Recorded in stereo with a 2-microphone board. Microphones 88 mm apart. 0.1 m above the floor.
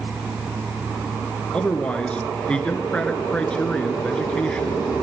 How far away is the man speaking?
About 1.2 m.